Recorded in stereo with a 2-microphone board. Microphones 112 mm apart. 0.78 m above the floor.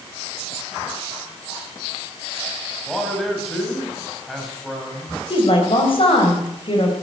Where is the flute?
I don't hear a flute.